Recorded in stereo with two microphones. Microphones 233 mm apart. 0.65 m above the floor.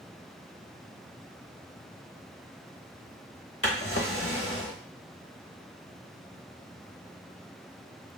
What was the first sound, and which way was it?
A drawer, 65° left (ahead or behind).